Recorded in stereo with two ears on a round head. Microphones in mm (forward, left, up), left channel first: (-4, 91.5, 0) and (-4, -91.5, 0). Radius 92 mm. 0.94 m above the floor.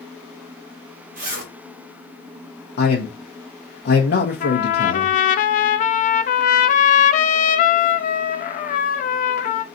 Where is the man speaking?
55° left (ahead or behind), 1.1 m.